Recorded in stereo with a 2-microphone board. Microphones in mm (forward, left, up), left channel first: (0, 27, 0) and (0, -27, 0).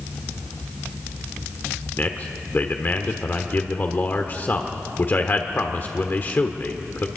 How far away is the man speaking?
About 1.3 m.